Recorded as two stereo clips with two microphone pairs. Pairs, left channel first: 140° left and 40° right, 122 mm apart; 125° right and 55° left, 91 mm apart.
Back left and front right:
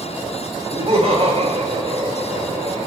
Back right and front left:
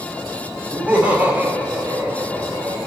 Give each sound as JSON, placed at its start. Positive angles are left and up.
{"t": 0.7, "sound": "laughter", "azimuth_deg": -15, "distance_m": 2.5}